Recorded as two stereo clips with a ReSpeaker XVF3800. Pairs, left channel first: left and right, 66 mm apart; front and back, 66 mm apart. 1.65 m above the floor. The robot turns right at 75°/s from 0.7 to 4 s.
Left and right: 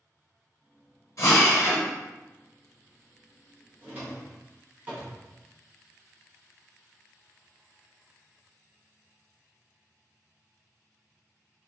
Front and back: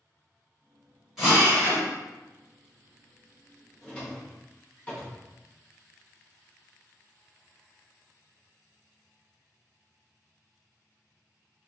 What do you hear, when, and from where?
1.2 s a drill: 95° left, 1.6 m; by 1.9 s 150° left, 1.6 m
3.8 s a drawer: 70° right, 1.3 m; by 5.2 s 55° right, 1.3 m